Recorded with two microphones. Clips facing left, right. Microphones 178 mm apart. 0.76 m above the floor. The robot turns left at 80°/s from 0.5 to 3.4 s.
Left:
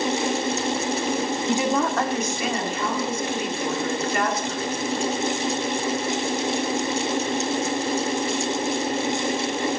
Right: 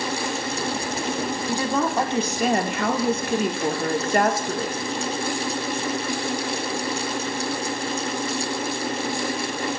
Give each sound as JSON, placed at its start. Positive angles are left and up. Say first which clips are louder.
{"t": 1.5, "sound": "a woman speaking", "louder": "left 1 dB", "azimuth_deg": 25, "distance_m": 1.6}